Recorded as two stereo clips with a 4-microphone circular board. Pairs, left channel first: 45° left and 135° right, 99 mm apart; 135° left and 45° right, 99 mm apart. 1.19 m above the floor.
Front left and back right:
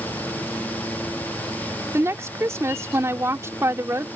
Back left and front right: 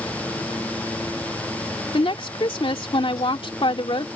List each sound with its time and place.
1.9 s a woman speaking: 165° left